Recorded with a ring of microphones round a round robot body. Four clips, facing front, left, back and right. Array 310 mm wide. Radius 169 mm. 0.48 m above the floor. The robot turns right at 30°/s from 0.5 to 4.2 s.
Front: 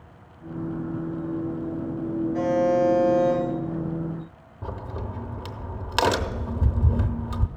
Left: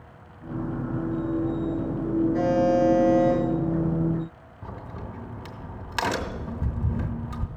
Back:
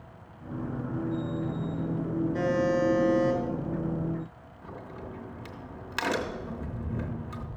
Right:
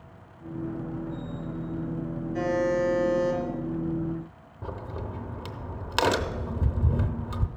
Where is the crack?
30° right, 0.8 m.